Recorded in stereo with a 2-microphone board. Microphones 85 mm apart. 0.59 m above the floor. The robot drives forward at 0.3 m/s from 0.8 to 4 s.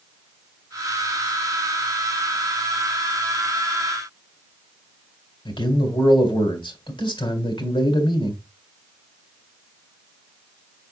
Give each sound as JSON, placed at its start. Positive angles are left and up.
{"t": 5.5, "sound": "a man speaking", "side_deg": 75, "distance_m": 2.5}